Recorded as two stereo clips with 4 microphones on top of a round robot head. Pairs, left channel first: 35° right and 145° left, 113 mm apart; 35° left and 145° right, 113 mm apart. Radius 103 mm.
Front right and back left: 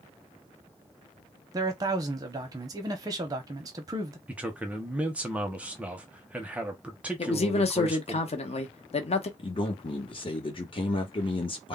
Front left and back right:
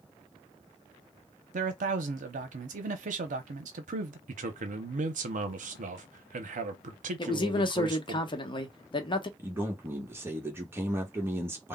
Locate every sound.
1.5 s a man speaking: 155° right, 0.6 m
4.3 s a man speaking: 135° right, 0.6 m
7.2 s a man speaking: 10° right, 0.8 m
9.4 s a man speaking: 75° right, 0.9 m